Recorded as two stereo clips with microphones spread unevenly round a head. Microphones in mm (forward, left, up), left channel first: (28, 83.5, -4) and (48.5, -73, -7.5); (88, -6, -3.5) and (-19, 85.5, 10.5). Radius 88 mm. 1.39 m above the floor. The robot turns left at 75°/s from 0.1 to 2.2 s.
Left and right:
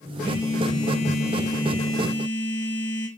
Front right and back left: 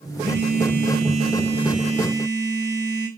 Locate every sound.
0.2 s a phone buzzing: 170° left, 6.5 m; by 3.1 s 20° left, 6.5 m